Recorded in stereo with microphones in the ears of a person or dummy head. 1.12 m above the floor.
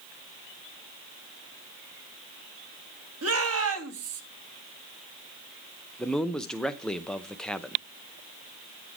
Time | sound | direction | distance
3.2 | a shout | 75° right (ahead or behind) | 2.5 m
6.0 | a man speaking | centre (ahead or behind) | 0.6 m